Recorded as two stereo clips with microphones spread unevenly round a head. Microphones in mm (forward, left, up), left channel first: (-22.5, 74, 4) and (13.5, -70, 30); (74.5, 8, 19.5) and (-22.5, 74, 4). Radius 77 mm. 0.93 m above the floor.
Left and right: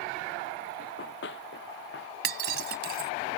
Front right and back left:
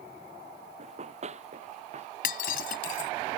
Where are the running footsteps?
115° left; by 2.1 s 120° left.